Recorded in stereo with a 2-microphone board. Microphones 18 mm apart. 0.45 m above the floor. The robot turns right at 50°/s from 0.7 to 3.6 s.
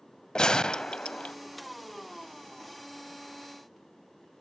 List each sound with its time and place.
0.3 s a gunshot: 40° left, 0.7 m; by 1.4 s 75° left, 0.7 m